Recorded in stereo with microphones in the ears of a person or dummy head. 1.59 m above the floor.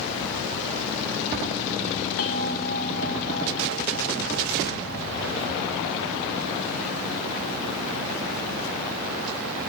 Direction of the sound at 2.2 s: 55° left (ahead or behind).